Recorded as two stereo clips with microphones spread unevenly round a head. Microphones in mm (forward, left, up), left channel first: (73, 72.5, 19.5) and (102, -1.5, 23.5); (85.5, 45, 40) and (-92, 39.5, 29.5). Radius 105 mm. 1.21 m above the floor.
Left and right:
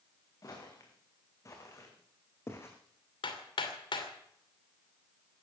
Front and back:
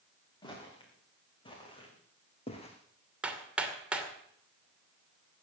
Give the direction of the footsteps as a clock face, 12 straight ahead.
10 o'clock.